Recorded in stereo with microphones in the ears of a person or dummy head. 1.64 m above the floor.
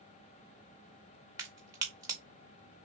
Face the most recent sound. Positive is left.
turn(degrees=-15)  # may be behind; listen again after turning